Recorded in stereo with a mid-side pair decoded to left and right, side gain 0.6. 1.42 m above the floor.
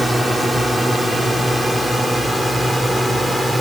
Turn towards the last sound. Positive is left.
turn(degrees=-5)